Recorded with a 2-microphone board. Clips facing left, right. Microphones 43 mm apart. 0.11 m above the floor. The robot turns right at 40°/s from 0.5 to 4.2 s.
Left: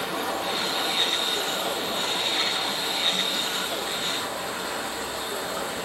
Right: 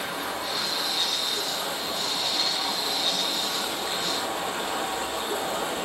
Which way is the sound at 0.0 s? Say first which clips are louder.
Left 3 dB; 90° left.